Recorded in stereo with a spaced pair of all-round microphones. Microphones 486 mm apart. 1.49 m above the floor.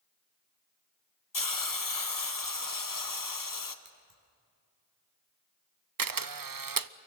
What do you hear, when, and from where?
1.3 s a hiss: 40° left (ahead or behind), 1.0 m
3.9 s scissors: 75° right (ahead or behind), 4.5 m
6.0 s a camera shutter: 45° right (ahead or behind), 0.5 m